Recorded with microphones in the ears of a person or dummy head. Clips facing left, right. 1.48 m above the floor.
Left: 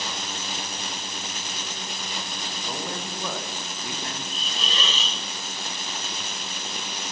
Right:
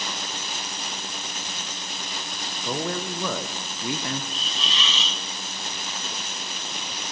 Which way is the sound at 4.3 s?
40° left (ahead or behind).